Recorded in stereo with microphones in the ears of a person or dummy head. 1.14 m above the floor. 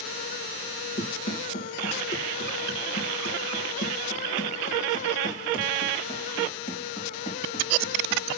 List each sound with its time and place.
1.0 s running footsteps: 55° left (ahead or behind), 2.5 m; by 8.2 s 35° left (ahead or behind), 4 m